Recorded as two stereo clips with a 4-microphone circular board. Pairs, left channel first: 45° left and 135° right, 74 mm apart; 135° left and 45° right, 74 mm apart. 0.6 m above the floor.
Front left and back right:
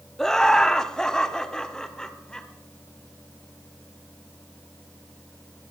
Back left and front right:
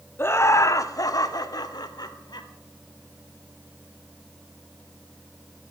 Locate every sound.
0.2 s laughter: 120° left, 0.7 m; by 2.5 s 125° left, 1.9 m